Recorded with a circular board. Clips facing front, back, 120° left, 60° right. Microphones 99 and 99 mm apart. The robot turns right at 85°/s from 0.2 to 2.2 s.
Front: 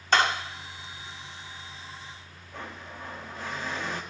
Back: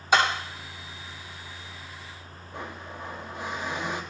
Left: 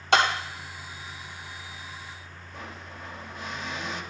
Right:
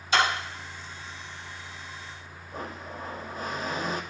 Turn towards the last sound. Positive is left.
turn(degrees=-110)